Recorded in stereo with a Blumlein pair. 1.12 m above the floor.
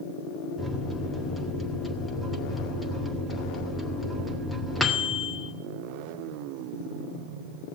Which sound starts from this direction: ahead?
A microwave, at 0.6 s.